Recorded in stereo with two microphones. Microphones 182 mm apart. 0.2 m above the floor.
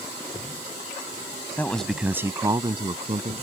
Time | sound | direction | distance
1.6 | a man speaking | 10° left (ahead or behind) | ?